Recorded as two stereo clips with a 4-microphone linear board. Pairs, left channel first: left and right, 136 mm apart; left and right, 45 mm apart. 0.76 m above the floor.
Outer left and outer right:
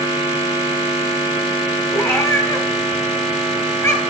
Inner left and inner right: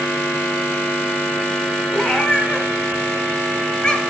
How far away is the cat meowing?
About 1.4 m.